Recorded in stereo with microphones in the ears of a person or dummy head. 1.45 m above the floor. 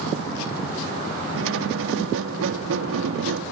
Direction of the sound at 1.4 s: 75° right (ahead or behind).